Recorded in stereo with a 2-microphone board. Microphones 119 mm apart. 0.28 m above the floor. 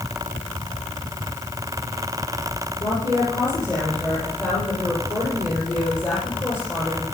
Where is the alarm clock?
I don't hear an alarm clock.